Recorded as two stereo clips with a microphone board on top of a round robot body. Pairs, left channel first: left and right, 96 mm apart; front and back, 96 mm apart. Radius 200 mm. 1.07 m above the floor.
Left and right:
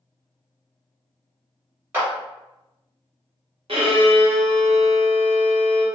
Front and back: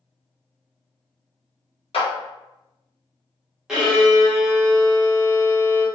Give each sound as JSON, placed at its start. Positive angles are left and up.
{"t": 1.9, "sound": "a clap", "azimuth_deg": -20, "distance_m": 1.2}
{"t": 3.7, "sound": "a violin", "azimuth_deg": -95, "distance_m": 1.1}